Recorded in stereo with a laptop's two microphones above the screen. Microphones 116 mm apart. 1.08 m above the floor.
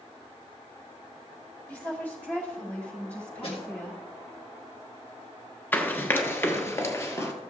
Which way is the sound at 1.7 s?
15° left (ahead or behind).